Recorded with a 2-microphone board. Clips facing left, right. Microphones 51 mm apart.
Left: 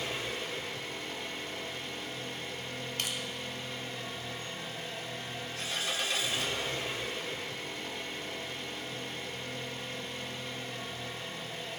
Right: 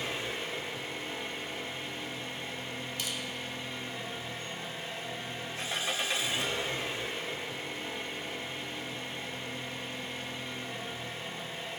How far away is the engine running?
About 1.8 m.